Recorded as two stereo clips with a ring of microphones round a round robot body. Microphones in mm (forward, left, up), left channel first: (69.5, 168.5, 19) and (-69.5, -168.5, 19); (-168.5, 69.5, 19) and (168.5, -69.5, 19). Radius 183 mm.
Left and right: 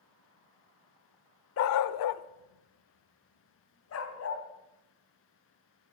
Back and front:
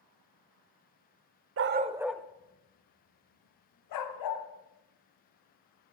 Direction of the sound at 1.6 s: 25° left.